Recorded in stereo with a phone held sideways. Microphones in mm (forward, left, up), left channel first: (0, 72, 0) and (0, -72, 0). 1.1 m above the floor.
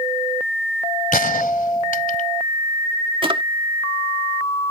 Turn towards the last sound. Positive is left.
turn(degrees=-35)  # may be behind; listen again after turning